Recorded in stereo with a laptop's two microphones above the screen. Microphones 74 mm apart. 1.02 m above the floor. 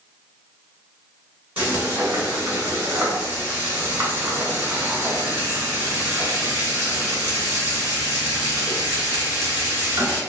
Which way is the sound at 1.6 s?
25° right (ahead or behind).